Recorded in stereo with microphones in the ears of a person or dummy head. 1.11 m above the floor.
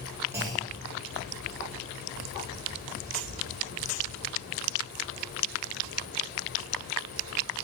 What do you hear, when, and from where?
0.3 s a clunk: 15° right (ahead or behind), 1.3 m